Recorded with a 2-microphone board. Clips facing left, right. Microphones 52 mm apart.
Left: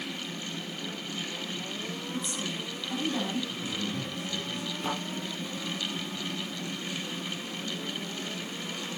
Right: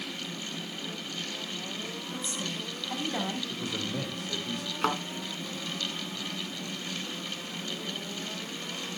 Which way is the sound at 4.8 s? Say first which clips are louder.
Right 5 dB; 70° right (ahead or behind).